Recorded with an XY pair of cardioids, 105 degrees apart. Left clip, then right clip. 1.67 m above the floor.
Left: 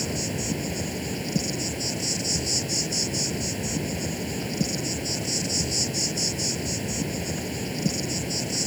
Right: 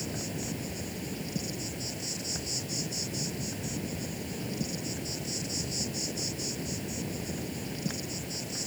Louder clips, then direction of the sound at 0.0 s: Left 7 dB; 50° left.